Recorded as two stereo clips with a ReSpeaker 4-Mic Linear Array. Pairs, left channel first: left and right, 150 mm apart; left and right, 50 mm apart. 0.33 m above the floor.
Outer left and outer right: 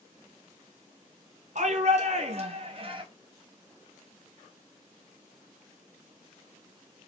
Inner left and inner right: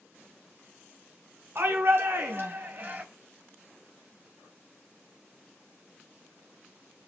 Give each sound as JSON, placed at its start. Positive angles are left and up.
{"t": 1.6, "sound": "a shout", "side_deg": -55, "distance_m": 3.5}